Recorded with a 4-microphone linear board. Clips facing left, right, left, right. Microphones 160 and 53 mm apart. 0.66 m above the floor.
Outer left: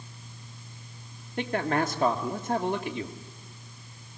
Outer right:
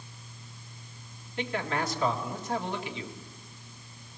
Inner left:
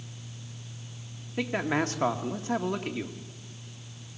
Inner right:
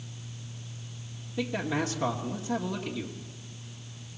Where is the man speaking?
50° left (ahead or behind), 1.6 m.